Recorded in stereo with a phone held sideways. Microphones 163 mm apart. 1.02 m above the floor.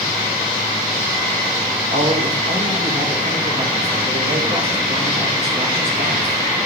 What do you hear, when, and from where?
1.9 s a man speaking: 80° right, 5.5 m